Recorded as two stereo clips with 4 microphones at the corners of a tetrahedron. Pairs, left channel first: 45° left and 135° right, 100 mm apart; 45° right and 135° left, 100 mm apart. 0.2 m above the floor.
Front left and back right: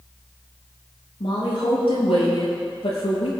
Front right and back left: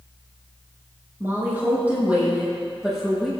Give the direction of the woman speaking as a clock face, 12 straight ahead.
10 o'clock.